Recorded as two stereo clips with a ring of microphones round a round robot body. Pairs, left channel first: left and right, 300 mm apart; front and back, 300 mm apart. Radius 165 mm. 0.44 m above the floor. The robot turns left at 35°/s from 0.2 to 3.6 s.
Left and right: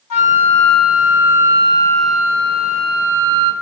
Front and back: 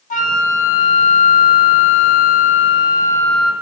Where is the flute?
65° left, 0.9 m; by 3.5 s 50° right, 0.9 m.